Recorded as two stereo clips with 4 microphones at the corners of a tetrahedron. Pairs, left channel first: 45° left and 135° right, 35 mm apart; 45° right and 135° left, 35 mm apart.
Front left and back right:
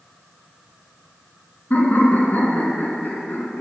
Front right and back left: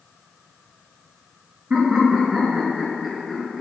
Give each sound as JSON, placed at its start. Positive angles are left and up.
{"t": 1.7, "sound": "laughter", "azimuth_deg": 70, "distance_m": 3.0}